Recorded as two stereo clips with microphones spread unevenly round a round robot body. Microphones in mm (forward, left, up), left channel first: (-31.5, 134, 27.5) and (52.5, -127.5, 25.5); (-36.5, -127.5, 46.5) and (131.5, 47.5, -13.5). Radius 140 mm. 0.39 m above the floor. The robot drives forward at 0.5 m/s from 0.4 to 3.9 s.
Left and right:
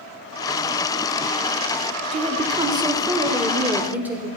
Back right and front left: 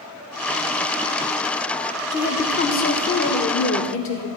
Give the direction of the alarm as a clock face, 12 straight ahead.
I don't hear an alarm.